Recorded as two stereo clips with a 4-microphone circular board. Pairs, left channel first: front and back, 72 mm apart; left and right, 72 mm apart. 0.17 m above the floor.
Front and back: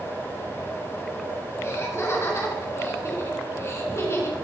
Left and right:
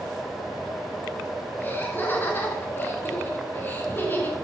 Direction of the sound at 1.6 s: 40° left.